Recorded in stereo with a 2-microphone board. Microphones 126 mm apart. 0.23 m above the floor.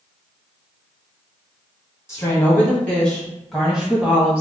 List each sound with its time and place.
2.1 s a woman speaking: 25° left (ahead or behind), 1.6 m; by 4.4 s 15° right (ahead or behind), 1.7 m